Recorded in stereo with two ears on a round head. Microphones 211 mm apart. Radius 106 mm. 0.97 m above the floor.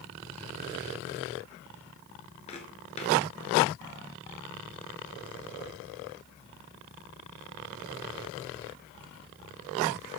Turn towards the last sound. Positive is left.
turn(degrees=30)  # may be behind; listen again after turning